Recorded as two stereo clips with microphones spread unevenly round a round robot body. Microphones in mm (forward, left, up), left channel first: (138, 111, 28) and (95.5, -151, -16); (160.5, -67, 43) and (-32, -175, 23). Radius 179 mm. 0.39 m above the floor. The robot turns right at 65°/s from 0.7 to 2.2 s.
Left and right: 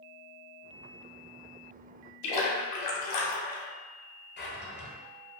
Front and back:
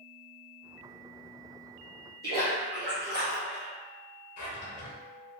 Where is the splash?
95° left, 0.5 m.